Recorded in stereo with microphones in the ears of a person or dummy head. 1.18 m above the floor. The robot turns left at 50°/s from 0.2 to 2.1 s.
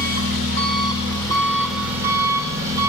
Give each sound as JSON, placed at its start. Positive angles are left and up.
{"t": 0.0, "sound": "an engine running", "azimuth_deg": 75, "distance_m": 4.0}